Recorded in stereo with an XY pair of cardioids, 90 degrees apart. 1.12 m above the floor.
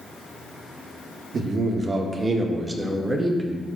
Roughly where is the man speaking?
Ahead right.